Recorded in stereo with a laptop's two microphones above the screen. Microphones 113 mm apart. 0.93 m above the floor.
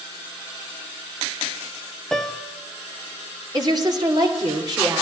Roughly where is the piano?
Centre.